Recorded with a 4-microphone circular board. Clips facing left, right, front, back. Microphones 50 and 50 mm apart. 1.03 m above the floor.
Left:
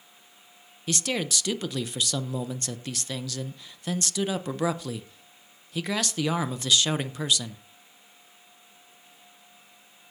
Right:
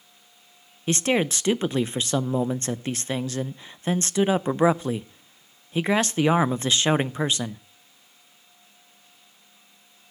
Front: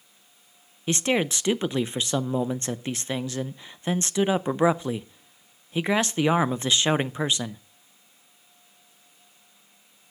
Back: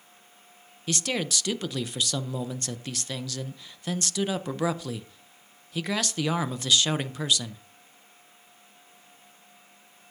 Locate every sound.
0.9 s a man speaking: 50° right, 0.5 m